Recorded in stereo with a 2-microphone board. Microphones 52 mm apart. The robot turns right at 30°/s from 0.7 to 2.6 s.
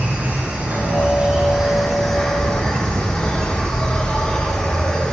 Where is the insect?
35° right, 1.7 m; by 5.1 s 20° left, 1.7 m.